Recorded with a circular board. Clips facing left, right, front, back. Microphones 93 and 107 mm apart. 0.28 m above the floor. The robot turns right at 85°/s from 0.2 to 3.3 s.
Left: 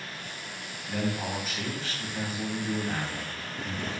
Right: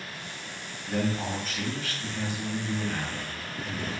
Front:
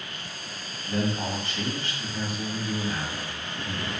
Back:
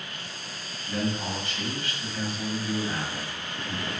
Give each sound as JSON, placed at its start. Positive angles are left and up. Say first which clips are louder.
{"t": 0.9, "sound": "a man speaking", "louder": "right 2 dB, front 2 dB", "azimuth_deg": -45, "distance_m": 1.4}